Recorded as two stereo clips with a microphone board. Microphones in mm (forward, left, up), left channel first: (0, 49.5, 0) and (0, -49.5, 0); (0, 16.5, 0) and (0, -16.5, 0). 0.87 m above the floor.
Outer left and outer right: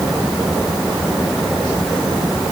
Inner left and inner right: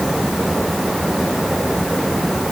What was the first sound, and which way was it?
Only background noise.